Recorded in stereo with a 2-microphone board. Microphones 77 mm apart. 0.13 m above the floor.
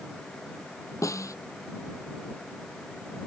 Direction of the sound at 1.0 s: 45° left (ahead or behind).